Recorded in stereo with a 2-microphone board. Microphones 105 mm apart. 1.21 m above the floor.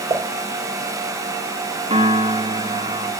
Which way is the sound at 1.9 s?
80° right.